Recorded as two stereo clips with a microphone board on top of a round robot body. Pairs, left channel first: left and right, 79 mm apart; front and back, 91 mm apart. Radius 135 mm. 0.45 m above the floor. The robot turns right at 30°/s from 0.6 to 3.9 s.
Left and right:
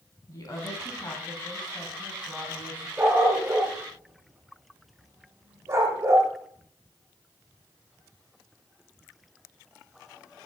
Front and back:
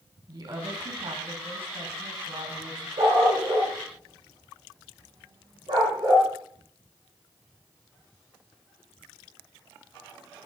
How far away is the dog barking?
About 6.5 m.